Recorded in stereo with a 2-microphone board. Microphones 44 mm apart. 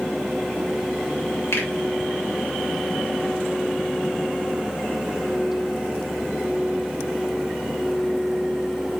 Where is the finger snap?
70° left (ahead or behind), 1.7 m.